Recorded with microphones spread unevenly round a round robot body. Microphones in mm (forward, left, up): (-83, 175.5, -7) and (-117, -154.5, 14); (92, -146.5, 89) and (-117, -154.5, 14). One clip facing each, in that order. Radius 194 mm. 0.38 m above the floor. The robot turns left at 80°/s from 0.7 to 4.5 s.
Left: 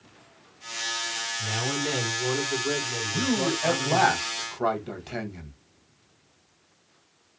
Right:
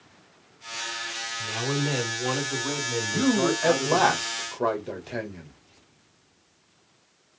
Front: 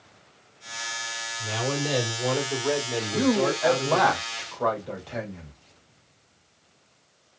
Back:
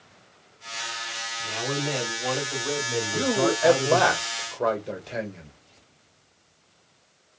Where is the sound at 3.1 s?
95° right, 1.7 m; by 5.5 s 150° left, 1.7 m.